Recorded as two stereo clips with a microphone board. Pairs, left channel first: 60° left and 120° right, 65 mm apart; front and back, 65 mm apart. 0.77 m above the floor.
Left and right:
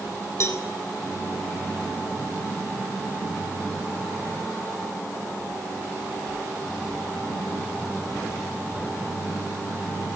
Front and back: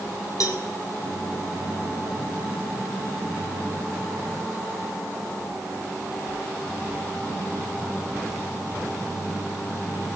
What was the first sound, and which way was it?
A cowbell, 20° left.